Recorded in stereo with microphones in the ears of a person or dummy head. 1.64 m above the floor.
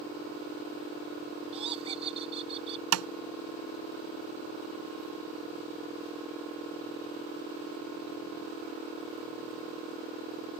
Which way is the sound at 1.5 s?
30° right (ahead or behind).